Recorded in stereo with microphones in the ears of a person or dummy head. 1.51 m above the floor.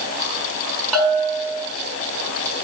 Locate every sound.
0.9 s a bell: 5° left (ahead or behind), 6 m